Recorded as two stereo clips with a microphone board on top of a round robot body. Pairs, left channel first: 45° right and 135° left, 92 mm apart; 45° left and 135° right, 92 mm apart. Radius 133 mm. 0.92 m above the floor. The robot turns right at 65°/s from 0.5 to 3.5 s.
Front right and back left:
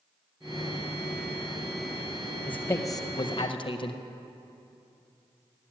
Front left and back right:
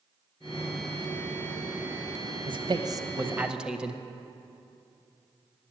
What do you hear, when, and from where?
2.5 s a man speaking: 125° right, 0.8 m; by 4.0 s 55° right, 0.8 m